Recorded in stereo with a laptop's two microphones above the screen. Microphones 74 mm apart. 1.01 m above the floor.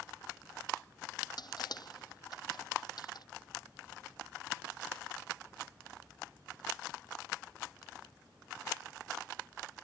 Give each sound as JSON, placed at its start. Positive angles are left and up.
{"t": 1.4, "sound": "crushing", "side_deg": 60}